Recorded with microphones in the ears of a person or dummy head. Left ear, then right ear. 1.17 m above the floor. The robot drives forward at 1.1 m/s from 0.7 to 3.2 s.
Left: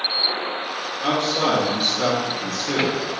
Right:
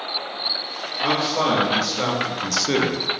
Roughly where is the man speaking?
Centre.